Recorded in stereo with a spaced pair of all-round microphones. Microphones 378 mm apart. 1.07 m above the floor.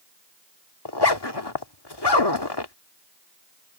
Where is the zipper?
80° left.